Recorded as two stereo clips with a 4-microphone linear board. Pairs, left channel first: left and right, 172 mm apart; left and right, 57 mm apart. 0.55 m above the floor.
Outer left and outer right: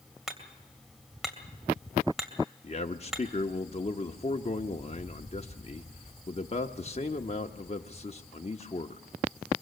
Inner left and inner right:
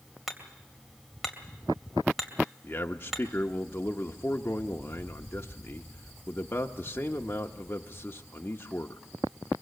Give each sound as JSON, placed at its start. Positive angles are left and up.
{"t": 0.3, "sound": "hammering", "side_deg": 0, "distance_m": 2.5}
{"t": 2.6, "sound": "a man speaking", "side_deg": 40, "distance_m": 0.7}